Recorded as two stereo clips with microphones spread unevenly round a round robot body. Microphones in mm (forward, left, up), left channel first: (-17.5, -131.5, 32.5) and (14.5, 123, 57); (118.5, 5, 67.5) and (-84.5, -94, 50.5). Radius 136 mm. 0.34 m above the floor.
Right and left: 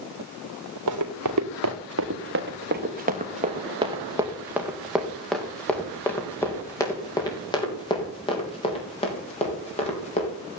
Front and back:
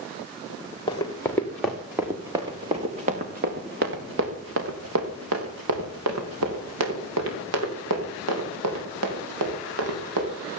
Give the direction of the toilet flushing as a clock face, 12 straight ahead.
No toilet flushing in this recording.